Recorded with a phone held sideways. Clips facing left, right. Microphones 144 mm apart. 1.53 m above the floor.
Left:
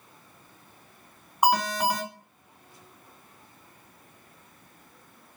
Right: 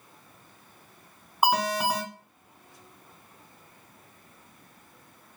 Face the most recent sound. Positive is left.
turn(degrees=-5)  # may be behind; listen again after turning